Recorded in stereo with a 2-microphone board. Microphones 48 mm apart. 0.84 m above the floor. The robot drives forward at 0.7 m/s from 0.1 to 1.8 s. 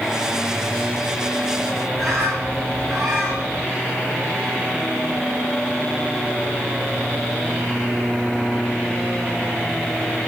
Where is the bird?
5° right (ahead or behind), 7 m.